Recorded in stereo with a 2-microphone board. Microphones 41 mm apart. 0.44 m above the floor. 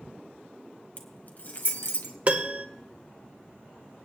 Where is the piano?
35° right (ahead or behind), 1.0 m.